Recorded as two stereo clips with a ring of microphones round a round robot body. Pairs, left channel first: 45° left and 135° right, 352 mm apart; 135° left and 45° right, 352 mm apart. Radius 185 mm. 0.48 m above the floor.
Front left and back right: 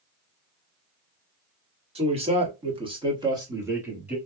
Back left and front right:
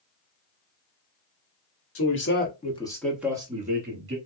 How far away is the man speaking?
About 1.5 m.